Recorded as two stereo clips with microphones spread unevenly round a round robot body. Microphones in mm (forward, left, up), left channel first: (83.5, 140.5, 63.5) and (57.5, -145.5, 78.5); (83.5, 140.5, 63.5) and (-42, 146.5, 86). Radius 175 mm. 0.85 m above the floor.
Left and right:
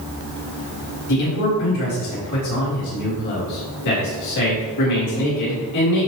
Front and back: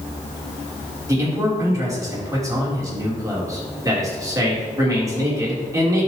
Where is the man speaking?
110° left, 3 m.